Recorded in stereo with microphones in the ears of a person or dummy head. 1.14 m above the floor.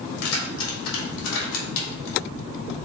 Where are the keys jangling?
80° left, 3 m; by 2.2 s 75° left (ahead or behind), 3 m.